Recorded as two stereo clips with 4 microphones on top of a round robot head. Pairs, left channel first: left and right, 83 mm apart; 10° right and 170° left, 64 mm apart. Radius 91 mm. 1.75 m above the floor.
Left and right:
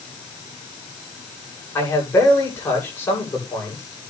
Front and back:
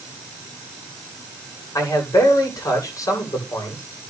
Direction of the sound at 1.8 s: 25° left.